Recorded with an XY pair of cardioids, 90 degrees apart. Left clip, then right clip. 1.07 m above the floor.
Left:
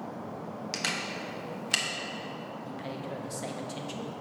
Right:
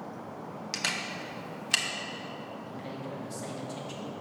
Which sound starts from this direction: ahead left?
A man speaking, at 2.7 s.